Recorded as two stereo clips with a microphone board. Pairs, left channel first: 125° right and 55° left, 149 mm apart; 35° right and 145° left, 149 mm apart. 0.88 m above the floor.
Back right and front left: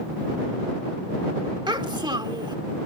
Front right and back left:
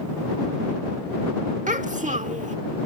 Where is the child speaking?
115° left.